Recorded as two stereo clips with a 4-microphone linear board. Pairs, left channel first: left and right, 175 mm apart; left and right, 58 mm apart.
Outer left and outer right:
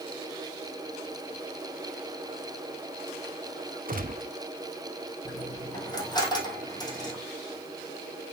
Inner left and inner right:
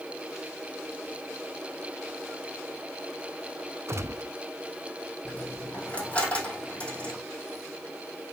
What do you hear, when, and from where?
3.9 s a gunshot: 55° right (ahead or behind), 0.7 m
5.2 s a dropped coin: 25° left (ahead or behind), 2.5 m